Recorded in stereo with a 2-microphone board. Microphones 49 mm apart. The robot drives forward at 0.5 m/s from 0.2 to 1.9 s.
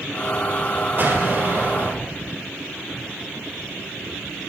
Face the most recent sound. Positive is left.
turn(degrees=-45)  # may be behind; listen again after turning